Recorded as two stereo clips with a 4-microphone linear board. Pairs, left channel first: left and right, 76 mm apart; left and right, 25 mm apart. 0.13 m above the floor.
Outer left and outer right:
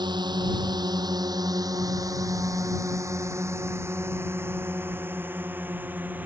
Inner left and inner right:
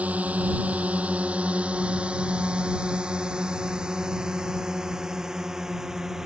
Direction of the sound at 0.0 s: 70° right (ahead or behind).